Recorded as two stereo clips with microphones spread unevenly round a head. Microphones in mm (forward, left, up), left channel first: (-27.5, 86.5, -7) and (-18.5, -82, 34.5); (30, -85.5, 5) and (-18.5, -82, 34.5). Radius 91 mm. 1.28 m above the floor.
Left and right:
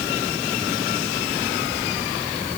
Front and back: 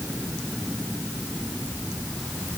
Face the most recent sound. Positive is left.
No sound to turn to.